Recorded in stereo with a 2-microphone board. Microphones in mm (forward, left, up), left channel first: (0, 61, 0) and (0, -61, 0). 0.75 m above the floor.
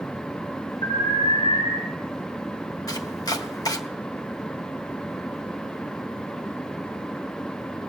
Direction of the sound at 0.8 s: 50° left (ahead or behind).